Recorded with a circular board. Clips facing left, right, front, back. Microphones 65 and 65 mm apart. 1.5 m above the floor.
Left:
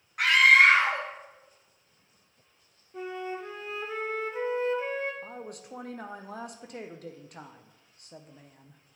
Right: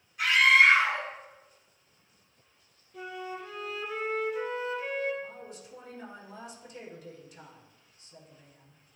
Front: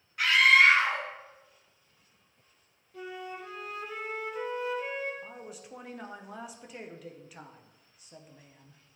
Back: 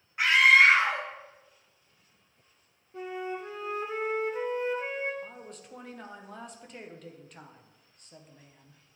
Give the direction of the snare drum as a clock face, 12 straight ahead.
I don't hear a snare drum.